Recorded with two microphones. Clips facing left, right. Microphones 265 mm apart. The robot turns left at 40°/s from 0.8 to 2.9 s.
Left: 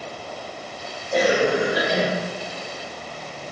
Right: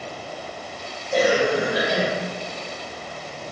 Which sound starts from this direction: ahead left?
A cough, at 1.1 s.